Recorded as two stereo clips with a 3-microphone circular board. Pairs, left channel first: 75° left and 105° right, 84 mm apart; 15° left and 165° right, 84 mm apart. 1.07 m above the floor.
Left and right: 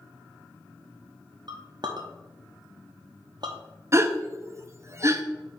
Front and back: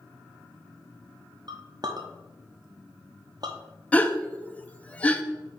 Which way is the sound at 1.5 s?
135° right.